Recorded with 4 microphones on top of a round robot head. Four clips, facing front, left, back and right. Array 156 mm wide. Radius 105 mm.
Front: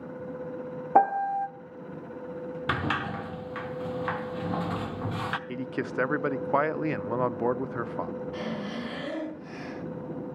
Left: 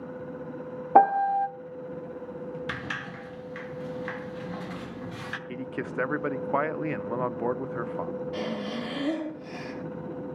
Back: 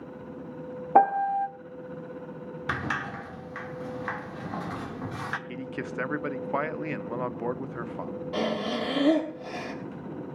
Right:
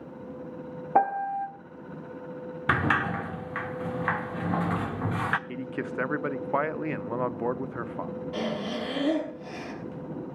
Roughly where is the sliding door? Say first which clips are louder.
Right 10 dB, front 2 dB; right.